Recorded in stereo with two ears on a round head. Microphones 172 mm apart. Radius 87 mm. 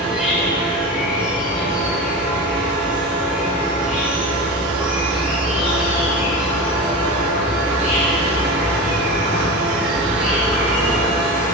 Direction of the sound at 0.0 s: 5° right (ahead or behind).